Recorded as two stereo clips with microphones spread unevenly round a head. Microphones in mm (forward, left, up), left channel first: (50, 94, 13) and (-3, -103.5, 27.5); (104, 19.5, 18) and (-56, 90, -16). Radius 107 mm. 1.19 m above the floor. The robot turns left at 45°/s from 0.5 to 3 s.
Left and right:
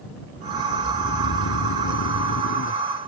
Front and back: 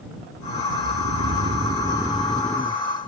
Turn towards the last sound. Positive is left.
turn(degrees=25)